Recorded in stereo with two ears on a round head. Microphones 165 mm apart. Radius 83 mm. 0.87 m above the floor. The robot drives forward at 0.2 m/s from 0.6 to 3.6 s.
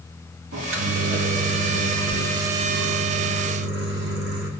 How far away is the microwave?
About 1.9 m.